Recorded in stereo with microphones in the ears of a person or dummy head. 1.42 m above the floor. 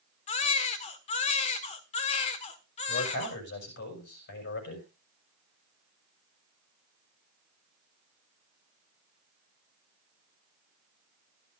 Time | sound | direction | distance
0.3 | a baby crying | 40° left (ahead or behind) | 1.5 m
2.9 | a man speaking | 60° left (ahead or behind) | 6.5 m